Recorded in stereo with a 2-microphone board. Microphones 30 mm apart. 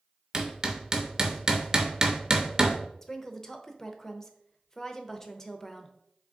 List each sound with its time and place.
0.3 s hammering: 20° right (ahead or behind), 0.6 m
3.0 s a woman speaking: 20° left (ahead or behind), 0.6 m